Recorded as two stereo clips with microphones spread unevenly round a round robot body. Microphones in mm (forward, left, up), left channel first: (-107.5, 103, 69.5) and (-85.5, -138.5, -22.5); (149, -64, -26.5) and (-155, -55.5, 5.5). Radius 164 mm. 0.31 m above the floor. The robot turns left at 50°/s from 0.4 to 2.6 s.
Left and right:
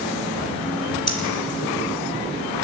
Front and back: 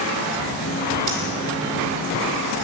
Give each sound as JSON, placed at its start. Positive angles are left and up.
{"t": 1.1, "sound": "breathing", "azimuth_deg": 140, "distance_m": 3.0}